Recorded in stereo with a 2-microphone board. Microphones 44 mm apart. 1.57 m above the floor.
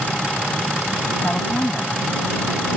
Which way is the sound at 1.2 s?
35° left (ahead or behind).